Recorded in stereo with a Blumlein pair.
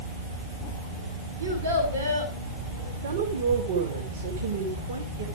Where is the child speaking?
65° right, 3 m.